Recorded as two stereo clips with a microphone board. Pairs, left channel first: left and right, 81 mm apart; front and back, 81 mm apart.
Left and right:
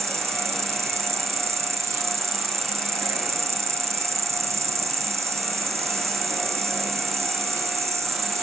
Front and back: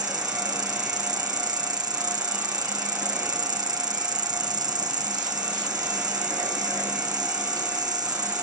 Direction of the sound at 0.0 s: 145° right.